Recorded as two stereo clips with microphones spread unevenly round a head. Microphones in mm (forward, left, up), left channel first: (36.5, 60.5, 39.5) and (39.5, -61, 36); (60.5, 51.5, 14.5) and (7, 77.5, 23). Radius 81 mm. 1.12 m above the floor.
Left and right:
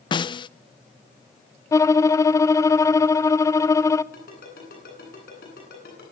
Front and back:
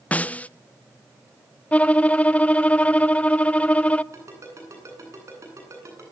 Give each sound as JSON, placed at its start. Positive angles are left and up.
{"t": 0.1, "sound": "a snare drum", "azimuth_deg": 40, "distance_m": 0.5}
{"t": 1.7, "sound": "a violin", "azimuth_deg": 30, "distance_m": 0.7}
{"t": 4.1, "sound": "a ringtone", "azimuth_deg": 120, "distance_m": 9.5}